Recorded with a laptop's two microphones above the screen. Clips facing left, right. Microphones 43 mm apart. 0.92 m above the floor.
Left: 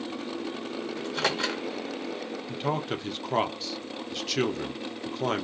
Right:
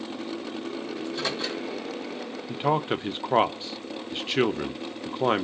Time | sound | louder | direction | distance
1.0 | a microwave | left 3 dB | 75° left (ahead or behind) | 1.1 m
2.5 | a man speaking | right 5 dB | 25° right (ahead or behind) | 0.5 m